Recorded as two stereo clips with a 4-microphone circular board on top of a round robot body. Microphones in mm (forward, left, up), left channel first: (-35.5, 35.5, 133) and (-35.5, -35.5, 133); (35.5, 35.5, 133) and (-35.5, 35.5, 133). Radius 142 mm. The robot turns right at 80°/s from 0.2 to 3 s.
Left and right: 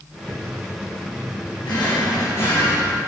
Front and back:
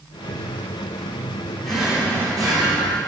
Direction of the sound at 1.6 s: 85° left.